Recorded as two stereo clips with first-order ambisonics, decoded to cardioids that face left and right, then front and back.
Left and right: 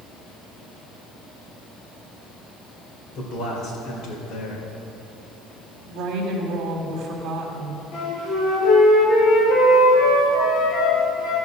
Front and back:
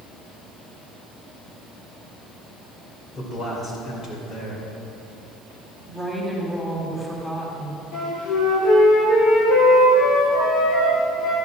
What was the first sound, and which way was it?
A man speaking, 60° left.